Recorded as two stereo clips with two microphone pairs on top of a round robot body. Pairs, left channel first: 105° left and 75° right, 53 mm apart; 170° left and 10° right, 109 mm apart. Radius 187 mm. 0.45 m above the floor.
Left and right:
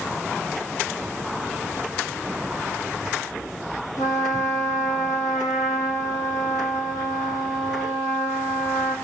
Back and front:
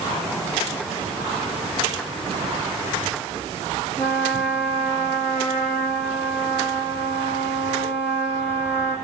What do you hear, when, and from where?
4.0 s a trumpet: 105° left, 5.5 m